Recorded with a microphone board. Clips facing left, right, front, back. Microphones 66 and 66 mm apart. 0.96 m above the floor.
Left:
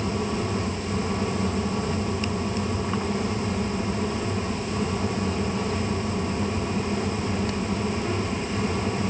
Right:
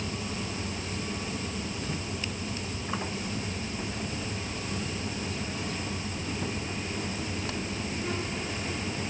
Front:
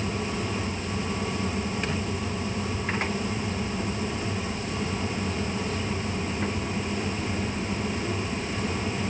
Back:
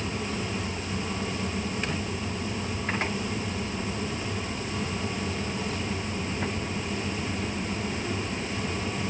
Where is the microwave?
No microwave in this recording.